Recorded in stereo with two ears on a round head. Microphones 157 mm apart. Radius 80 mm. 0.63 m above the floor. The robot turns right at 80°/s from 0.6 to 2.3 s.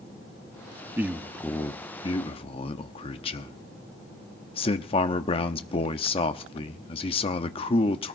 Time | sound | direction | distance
1.0 | a man speaking | 25° right | 0.8 m